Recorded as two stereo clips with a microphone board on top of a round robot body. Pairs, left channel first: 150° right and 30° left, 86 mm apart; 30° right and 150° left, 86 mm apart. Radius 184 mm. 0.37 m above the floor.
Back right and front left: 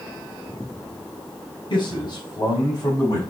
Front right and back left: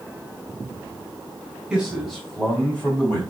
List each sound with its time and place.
1.7 s a man speaking: 130° right, 3.5 m; by 3.2 s 95° right, 4.5 m